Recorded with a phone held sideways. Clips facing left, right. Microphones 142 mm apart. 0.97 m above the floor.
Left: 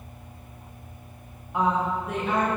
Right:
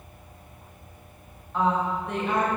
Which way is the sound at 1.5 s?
15° left (ahead or behind).